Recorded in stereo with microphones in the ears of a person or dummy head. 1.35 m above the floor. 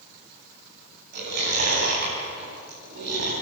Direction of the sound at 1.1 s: 60° right (ahead or behind).